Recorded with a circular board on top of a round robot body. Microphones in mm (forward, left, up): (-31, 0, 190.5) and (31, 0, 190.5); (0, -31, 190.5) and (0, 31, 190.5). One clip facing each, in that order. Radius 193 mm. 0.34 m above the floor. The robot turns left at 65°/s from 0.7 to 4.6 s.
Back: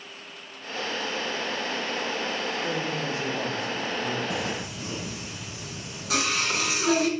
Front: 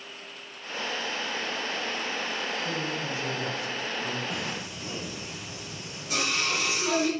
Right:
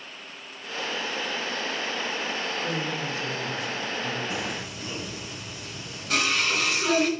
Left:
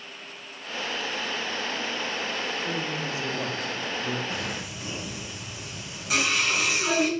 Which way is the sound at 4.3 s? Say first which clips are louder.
Back 3 dB, right 1 dB; 165° right.